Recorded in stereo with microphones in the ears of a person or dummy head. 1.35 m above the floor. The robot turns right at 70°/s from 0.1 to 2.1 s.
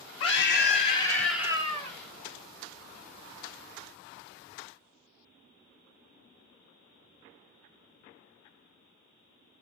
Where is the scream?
100° left, 1.6 m; by 2.0 s 140° right, 1.6 m.